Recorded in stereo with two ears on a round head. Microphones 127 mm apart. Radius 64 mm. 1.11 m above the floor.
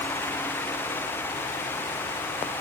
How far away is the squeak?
No squeak in this recording.